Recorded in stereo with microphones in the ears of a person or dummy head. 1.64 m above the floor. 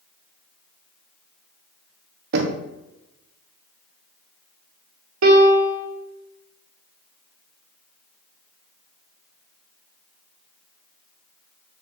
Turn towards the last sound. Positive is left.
turn(degrees=-75)  # may be behind; listen again after turning